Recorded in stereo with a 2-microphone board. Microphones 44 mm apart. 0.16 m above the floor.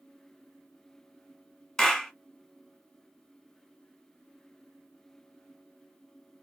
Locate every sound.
1.8 s a clap: 10° left (ahead or behind), 1.4 m